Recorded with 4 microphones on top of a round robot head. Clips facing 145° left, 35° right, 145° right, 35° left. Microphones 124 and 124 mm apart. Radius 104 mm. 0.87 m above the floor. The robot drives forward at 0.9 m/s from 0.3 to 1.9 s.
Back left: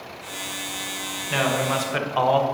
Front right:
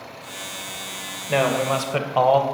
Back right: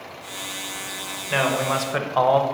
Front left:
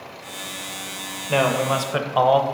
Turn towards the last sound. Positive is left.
turn(degrees=-35)